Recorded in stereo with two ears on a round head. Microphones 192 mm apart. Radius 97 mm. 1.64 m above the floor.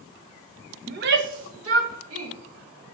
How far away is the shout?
About 0.7 m.